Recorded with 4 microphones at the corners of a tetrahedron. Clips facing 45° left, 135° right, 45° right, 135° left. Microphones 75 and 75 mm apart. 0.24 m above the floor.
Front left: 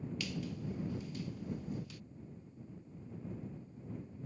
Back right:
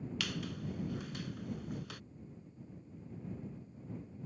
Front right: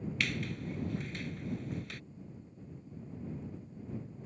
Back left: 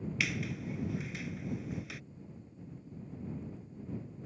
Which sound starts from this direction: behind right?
A squeak, at 0.2 s.